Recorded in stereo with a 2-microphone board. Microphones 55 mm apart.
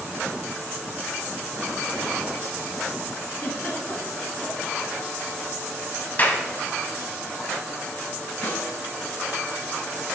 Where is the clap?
35° left (ahead or behind), 1.4 m.